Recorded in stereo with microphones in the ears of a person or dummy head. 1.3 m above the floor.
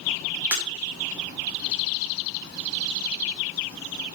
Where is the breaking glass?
15° right (ahead or behind), 2.5 m.